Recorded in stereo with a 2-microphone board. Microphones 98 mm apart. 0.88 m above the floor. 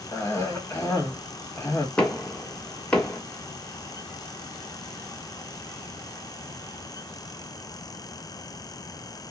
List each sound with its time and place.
0.1 s a cough: 20° left (ahead or behind), 1.7 m
2.0 s knocking: 15° left (ahead or behind), 1.3 m